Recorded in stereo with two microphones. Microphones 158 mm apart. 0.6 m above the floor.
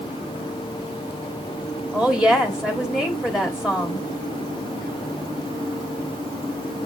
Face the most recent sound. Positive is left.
turn(degrees=-5)  # may be behind; listen again after turning